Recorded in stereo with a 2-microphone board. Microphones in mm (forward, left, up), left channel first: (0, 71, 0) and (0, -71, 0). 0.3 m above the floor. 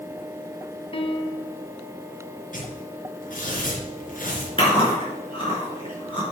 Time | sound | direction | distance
0.9 | a piano | 40° left (ahead or behind) | 1.0 m
2.5 | tearing paper | 70° left (ahead or behind) | 4 m
4.6 | chewing | 35° left (ahead or behind) | 4 m